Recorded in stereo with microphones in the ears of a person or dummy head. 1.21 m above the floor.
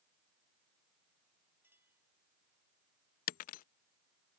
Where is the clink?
10° right (ahead or behind).